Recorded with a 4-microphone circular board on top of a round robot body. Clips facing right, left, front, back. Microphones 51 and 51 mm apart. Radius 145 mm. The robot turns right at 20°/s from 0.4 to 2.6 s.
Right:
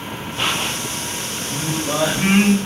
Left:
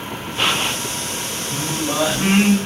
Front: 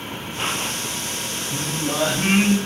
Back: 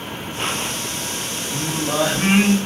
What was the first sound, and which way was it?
Singing, 160° right.